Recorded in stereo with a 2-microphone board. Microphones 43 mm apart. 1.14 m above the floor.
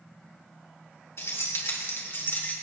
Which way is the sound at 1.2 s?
80° left.